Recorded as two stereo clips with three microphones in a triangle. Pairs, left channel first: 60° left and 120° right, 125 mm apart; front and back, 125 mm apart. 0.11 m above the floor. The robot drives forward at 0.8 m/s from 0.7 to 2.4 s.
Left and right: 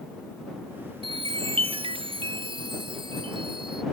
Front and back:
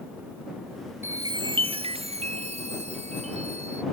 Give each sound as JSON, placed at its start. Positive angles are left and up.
{"t": 1.0, "sound": "a chime", "azimuth_deg": -115}